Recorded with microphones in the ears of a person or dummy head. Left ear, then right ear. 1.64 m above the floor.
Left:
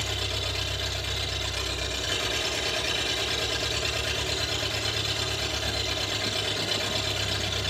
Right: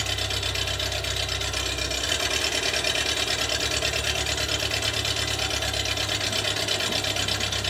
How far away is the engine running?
About 2.5 m.